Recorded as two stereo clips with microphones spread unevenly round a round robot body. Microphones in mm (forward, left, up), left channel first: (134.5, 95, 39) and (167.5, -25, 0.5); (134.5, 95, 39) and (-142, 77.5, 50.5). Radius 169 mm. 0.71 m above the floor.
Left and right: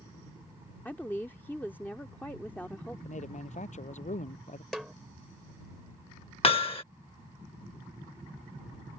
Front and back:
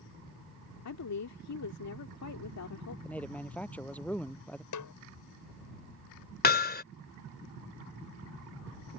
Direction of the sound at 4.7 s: 15° left.